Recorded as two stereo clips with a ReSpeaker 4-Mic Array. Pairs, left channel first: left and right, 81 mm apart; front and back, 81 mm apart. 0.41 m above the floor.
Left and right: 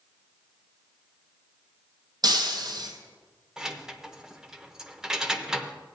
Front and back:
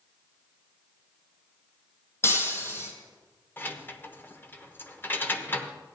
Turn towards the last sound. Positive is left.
turn(degrees=-15)